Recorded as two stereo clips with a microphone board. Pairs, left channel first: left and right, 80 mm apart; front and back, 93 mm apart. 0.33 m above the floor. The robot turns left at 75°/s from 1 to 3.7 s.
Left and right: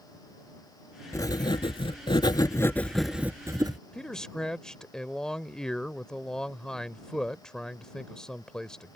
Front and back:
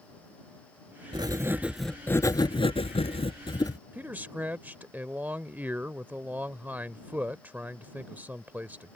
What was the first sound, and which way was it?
Writing, 140° left.